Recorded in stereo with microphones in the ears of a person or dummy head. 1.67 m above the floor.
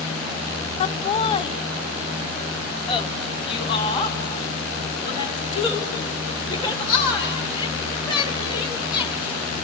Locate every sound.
0.8 s laughter: 35° left (ahead or behind), 1.0 m; by 9.7 s 25° left (ahead or behind), 6 m